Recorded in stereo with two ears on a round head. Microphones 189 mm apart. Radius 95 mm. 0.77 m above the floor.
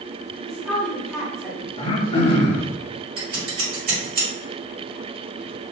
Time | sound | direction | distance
0.5 | a woman speaking | centre (ahead or behind) | 1.0 m
1.8 | throat clearing | 30° left (ahead or behind) | 0.8 m
3.2 | scissors | 45° right (ahead or behind) | 1.7 m